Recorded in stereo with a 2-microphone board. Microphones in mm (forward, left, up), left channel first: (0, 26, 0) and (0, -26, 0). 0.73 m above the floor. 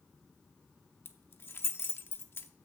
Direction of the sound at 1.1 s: 50° left (ahead or behind).